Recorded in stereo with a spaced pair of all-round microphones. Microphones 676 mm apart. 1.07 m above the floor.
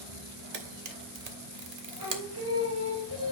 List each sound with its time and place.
0.5 s a camera shutter: 65° right (ahead or behind), 1.1 m
2.0 s singing: 35° right (ahead or behind), 3.5 m